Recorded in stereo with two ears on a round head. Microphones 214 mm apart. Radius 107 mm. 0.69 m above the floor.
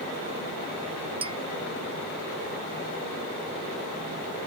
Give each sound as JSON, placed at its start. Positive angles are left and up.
{"t": 1.2, "sound": "a clink", "side_deg": -25}